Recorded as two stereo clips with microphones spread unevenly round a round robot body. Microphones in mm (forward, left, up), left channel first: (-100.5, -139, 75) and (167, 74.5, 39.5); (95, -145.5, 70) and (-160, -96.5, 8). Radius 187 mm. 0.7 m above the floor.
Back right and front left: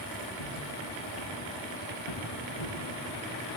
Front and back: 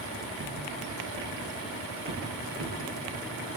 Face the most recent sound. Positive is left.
turn(degrees=-160)